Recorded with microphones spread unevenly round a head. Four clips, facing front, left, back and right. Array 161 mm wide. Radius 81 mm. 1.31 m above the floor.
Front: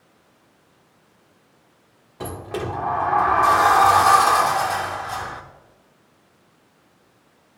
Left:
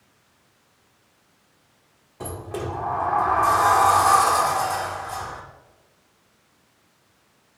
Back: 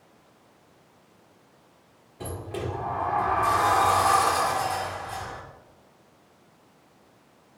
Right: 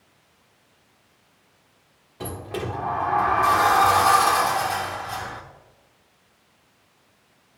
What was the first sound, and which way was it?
A sliding door, 5° left.